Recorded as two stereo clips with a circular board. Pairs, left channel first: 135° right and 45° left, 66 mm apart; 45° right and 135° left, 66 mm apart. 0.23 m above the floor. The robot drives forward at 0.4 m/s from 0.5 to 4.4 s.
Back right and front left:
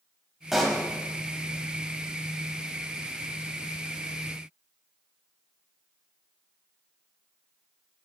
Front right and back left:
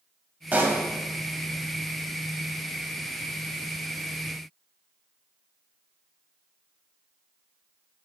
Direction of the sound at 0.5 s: 125° left.